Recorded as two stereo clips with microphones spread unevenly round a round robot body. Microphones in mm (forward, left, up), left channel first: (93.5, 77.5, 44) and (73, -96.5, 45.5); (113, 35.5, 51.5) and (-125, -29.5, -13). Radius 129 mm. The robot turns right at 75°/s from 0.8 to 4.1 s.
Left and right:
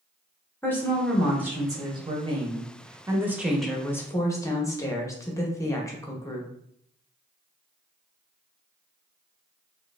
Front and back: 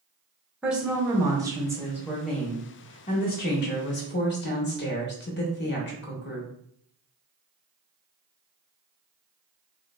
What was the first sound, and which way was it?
A woman speaking, 145° left.